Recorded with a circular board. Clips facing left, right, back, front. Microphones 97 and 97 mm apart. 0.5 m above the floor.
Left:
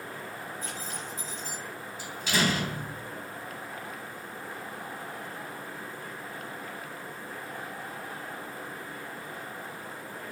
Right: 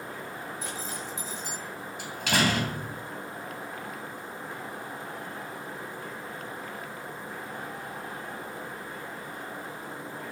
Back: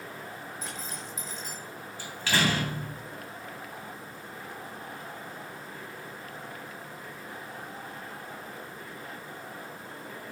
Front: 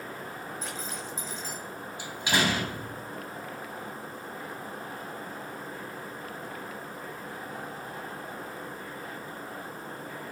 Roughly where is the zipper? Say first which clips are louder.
Right 2 dB, front 2 dB; right.